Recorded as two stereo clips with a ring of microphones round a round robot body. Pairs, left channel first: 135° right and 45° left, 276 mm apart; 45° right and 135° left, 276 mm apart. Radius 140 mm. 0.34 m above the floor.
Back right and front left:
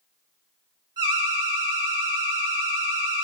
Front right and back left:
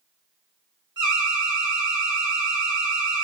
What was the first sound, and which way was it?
An alarm, 90° left.